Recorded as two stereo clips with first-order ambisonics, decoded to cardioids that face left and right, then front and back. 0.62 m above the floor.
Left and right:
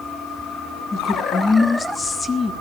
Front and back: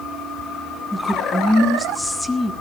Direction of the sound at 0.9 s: 65° left.